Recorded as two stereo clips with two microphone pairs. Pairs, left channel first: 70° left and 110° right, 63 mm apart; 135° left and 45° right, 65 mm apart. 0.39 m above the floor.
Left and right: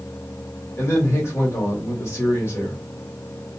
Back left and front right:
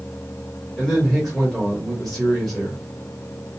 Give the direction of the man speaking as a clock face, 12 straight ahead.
10 o'clock.